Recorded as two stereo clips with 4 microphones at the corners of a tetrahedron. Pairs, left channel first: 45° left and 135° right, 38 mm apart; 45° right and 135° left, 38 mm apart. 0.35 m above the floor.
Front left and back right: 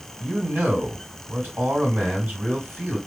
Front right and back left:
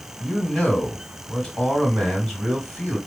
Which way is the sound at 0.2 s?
125° right.